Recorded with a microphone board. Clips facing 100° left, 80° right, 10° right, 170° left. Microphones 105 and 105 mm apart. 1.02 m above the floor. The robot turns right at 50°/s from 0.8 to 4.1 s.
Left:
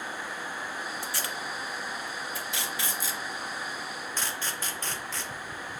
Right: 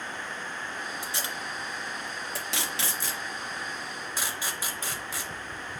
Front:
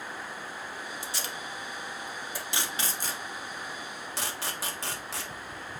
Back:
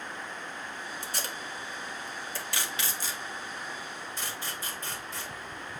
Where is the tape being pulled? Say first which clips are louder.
Even, even; 155° right, 1.7 m; by 5.3 s straight ahead, 1.7 m.